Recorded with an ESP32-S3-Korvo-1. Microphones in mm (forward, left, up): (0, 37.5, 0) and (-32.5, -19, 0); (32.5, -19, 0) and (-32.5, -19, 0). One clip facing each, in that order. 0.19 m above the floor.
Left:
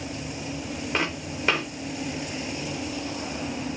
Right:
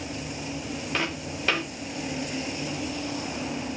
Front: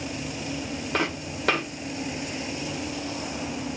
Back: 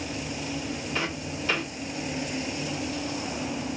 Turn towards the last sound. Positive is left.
turn(degrees=-15)